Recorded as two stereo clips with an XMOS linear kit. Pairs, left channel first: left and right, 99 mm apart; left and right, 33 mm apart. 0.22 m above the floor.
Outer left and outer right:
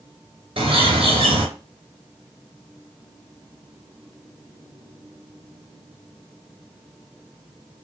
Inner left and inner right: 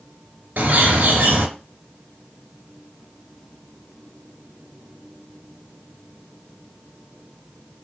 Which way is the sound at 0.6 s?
80° right.